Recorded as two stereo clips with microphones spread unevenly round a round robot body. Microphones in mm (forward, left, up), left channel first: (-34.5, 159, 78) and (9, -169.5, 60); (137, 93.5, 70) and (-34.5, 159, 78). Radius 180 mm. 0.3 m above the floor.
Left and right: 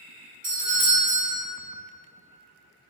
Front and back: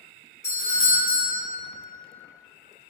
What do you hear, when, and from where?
0.4 s a doorbell: 65° right, 1.4 m